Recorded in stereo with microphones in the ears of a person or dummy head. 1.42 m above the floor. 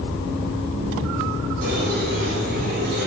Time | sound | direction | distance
1.6 | a squeak | 65° right (ahead or behind) | 4.5 m